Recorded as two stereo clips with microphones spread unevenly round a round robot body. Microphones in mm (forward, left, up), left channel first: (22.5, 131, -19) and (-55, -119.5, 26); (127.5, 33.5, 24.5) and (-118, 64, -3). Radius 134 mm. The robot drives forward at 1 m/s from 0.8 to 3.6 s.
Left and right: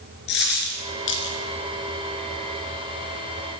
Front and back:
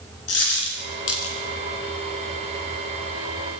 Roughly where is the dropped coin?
Ahead.